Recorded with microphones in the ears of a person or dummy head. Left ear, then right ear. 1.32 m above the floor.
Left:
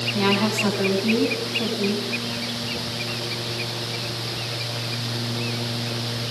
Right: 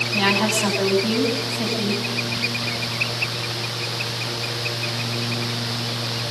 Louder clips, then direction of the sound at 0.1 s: Right 3 dB; 75° right (ahead or behind).